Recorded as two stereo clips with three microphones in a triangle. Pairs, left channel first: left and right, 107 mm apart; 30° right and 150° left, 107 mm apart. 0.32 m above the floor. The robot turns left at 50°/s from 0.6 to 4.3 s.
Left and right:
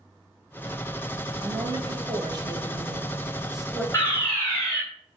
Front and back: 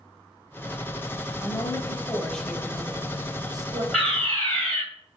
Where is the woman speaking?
60° right, 1.9 m; by 3.8 s 175° left, 1.9 m.